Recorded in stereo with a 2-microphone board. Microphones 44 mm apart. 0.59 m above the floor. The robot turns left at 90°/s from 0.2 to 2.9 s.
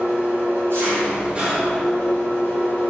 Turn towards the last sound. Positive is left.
turn(degrees=75)